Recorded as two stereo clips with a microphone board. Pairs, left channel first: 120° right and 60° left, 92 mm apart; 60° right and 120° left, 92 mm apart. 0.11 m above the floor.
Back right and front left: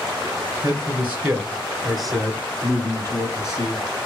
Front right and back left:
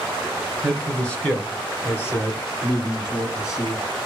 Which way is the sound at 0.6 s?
20° left.